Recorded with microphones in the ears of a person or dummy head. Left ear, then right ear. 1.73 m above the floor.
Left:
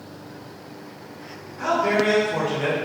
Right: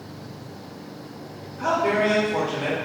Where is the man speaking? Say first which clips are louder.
Left 1 dB; 30° left (ahead or behind), 1.5 m.